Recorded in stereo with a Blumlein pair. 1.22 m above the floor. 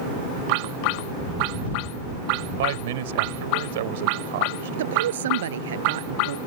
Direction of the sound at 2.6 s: 55° right.